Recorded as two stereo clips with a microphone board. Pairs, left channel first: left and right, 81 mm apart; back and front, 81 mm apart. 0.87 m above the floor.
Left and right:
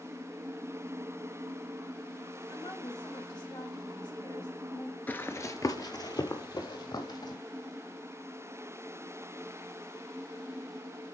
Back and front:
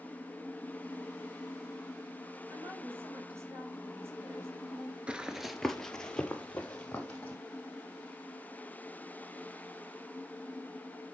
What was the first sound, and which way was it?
A woman speaking, 55° left.